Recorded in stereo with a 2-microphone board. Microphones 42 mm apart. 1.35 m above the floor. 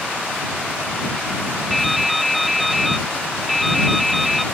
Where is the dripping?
Centre (ahead or behind).